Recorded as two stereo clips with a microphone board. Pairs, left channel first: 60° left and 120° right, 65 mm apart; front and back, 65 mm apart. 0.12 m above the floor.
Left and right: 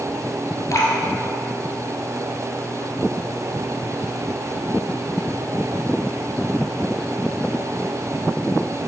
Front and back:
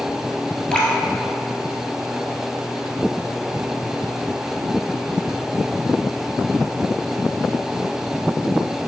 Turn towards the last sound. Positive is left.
turn(degrees=70)